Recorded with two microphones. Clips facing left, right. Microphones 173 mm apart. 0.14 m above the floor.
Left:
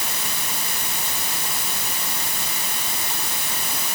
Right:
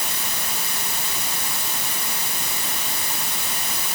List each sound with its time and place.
Only background noise.